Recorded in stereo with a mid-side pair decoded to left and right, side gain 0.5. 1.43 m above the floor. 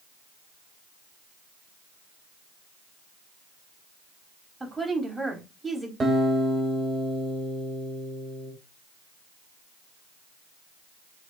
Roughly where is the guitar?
Ahead right.